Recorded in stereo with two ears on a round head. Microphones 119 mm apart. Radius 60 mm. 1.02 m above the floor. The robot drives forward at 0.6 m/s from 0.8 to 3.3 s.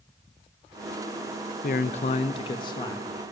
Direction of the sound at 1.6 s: 65° left (ahead or behind).